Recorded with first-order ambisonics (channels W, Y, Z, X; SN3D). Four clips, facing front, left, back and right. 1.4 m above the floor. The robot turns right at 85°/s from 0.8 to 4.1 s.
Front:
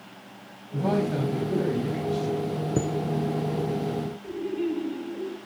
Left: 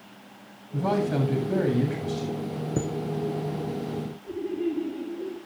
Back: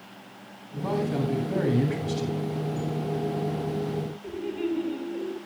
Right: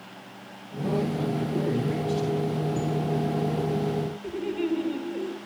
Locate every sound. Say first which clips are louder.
0.7 s a man speaking: left 2 dB, front 2 dB; 50° left, 8.5 m; by 2.3 s straight behind, 8.5 m
2.8 s a chime: left 1 dB, front 6 dB; 30° left, 0.9 m; by 2.9 s 40° left, 0.9 m
4.2 s laughter: left 2 dB, front 2 dB; 100° right, 6 m